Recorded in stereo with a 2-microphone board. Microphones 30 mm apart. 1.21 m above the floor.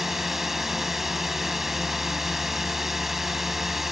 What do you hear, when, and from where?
0.0 s a drone: 5° right (ahead or behind)